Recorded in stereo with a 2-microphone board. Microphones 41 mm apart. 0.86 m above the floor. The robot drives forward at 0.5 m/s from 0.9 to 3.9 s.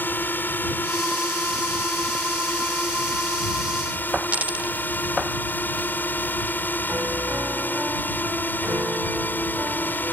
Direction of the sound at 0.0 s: 50° left (ahead or behind).